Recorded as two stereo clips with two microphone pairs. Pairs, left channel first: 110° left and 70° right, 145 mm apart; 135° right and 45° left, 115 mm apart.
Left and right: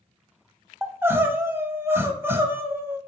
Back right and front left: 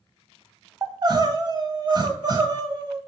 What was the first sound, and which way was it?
Crying, straight ahead.